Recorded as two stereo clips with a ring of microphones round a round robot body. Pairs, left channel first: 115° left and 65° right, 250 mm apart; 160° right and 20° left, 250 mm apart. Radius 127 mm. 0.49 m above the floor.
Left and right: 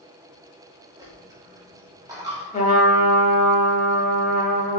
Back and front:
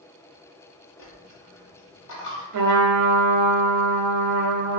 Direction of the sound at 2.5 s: 50° left.